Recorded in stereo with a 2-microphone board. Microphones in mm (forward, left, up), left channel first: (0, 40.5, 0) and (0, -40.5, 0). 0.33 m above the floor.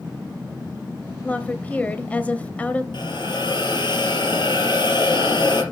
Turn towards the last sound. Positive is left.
turn(degrees=65)  # may be behind; listen again after turning